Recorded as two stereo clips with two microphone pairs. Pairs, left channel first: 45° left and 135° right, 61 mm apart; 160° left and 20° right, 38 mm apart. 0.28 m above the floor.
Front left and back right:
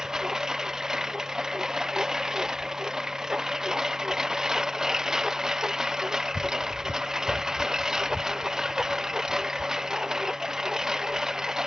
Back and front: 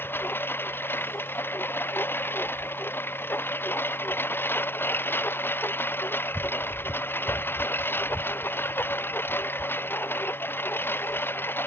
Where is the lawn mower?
145° left.